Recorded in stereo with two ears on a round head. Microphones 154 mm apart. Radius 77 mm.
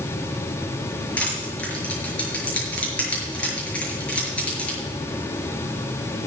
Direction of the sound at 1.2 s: 10° left (ahead or behind).